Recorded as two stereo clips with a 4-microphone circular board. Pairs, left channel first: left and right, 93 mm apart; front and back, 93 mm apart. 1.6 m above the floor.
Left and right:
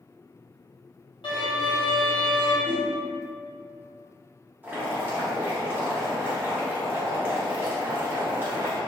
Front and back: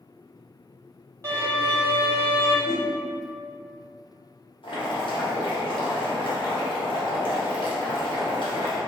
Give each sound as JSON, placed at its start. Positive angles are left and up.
{"t": 1.2, "sound": "a violin", "azimuth_deg": 120, "distance_m": 1.0}
{"t": 2.6, "sound": "a whoosh", "azimuth_deg": -85, "distance_m": 0.7}
{"t": 4.6, "sound": "boiling", "azimuth_deg": -20, "distance_m": 0.8}